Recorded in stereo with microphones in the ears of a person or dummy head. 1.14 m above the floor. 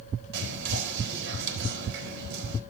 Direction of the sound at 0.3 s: 65° right (ahead or behind).